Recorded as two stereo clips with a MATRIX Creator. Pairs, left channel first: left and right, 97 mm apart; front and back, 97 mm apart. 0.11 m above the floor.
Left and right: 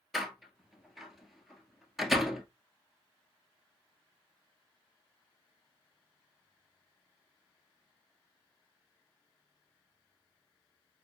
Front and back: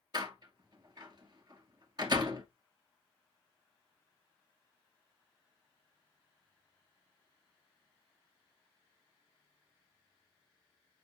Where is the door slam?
175° right, 1.3 m.